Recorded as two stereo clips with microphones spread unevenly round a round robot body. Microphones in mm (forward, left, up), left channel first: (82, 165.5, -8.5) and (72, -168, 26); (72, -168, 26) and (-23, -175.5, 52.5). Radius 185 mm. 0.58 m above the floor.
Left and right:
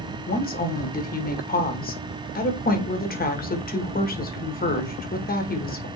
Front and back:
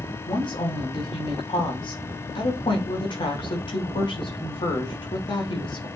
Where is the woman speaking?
30° left, 1.5 m.